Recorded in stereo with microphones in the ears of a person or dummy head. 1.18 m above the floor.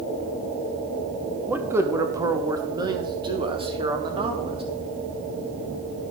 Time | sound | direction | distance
1.5 | a man speaking | 5° right (ahead or behind) | 0.9 m